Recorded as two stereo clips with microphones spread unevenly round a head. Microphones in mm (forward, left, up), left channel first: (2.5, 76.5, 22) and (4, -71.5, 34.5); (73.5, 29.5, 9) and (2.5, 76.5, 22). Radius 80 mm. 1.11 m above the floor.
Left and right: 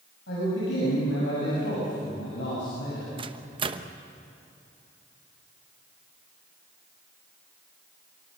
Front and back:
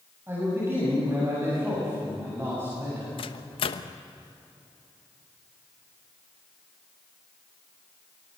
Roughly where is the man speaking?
Left.